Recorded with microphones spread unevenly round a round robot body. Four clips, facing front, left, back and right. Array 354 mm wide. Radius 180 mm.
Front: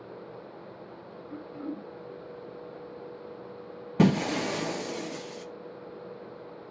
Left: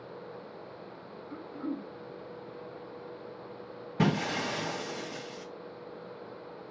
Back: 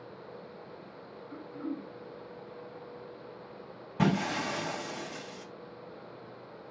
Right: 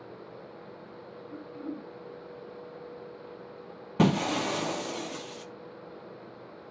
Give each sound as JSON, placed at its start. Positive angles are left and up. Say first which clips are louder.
{"t": 1.3, "sound": "throat clearing", "louder": "left 2 dB, front 1 dB", "azimuth_deg": 0, "distance_m": 1.2}
{"t": 4.0, "sound": "breaking glass", "louder": "right 4 dB, front 5 dB", "azimuth_deg": -30, "distance_m": 0.6}